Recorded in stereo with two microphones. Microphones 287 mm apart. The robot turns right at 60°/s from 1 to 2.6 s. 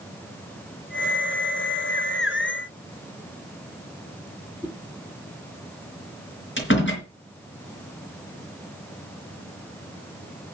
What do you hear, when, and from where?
4.6 s a whoosh: 15° left (ahead or behind), 3 m
6.6 s a door slam: 40° left (ahead or behind), 4 m